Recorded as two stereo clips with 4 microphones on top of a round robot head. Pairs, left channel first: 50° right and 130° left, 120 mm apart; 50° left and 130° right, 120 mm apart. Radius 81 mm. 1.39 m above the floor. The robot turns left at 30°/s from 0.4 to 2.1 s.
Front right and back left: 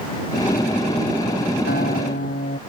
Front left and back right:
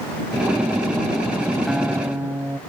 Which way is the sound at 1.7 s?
45° right.